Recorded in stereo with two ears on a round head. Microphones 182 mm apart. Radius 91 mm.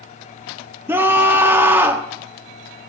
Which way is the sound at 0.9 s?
10° right (ahead or behind).